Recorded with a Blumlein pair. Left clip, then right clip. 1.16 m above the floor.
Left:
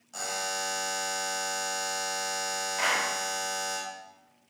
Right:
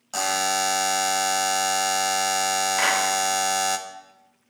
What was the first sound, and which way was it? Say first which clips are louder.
A buzzer: right 9 dB; 55° right.